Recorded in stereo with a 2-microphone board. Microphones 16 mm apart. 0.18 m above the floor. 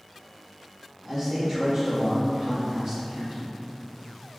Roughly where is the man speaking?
Right.